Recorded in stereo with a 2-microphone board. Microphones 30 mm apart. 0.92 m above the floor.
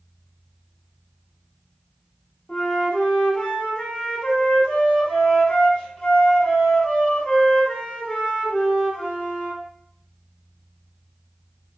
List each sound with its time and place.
2.5 s a flute: 50° left (ahead or behind), 1.6 m